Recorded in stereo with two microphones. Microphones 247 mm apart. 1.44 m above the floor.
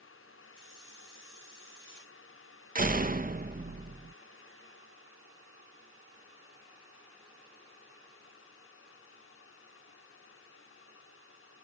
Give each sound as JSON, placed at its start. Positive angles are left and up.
{"t": 0.6, "sound": "a hiss", "side_deg": 55}
{"t": 2.8, "sound": "a door slam", "side_deg": -35}